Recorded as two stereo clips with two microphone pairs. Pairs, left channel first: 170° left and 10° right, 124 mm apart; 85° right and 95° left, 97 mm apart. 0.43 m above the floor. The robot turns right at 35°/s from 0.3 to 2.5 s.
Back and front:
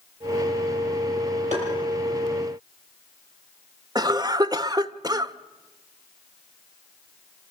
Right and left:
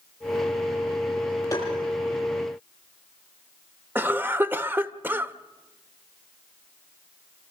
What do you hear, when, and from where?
1.5 s tapping: 30° right, 10 m; by 1.7 s 25° right, 10 m
4.0 s a cough: 35° left, 1.0 m